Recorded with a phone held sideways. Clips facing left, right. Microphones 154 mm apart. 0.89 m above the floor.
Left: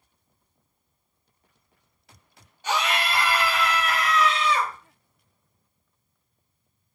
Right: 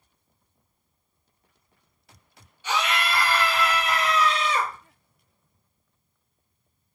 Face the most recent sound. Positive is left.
turn(degrees=-50)  # may be behind; listen again after turning